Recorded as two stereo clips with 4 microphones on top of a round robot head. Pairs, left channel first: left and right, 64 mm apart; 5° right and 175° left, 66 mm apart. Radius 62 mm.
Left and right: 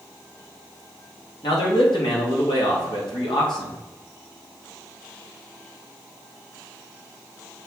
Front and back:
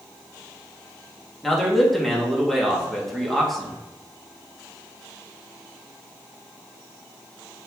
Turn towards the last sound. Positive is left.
turn(degrees=80)